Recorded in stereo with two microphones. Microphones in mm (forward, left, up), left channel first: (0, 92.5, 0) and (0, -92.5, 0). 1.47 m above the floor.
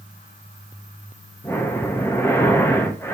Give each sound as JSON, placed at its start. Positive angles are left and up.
{"t": 1.4, "sound": "breathing", "side_deg": 15, "distance_m": 0.6}